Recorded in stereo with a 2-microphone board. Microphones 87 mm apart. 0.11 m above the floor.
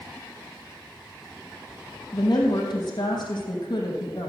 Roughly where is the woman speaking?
Left.